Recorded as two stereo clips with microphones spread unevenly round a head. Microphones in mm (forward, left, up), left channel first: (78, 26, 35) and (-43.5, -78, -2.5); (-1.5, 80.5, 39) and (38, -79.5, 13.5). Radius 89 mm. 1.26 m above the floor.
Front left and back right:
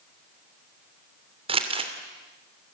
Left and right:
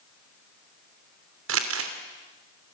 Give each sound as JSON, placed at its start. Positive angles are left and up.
{"t": 1.5, "sound": "crumpling", "azimuth_deg": -80, "distance_m": 2.5}